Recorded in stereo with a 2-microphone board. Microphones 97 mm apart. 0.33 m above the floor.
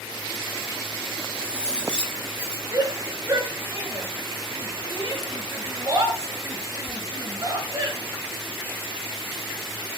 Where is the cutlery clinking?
10° left (ahead or behind), 5.5 m.